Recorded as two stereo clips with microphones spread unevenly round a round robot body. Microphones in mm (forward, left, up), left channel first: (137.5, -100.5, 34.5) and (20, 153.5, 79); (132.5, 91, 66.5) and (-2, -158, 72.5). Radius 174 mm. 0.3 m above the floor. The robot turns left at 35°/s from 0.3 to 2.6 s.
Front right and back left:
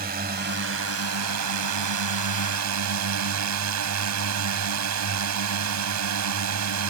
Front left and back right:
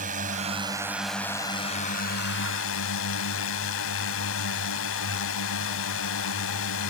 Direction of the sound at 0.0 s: Straight behind.